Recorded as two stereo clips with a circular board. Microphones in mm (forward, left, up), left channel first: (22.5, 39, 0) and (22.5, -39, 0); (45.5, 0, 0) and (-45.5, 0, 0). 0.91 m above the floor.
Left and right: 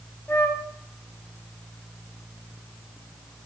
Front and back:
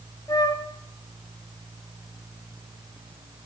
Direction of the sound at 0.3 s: 30° left.